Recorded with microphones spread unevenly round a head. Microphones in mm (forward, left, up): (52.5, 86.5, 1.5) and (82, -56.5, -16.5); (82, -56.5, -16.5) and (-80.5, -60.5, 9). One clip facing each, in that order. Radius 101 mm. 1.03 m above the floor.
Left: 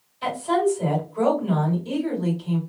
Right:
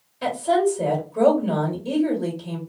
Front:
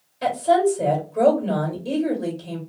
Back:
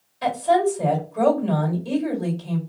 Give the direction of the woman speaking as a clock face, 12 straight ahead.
2 o'clock.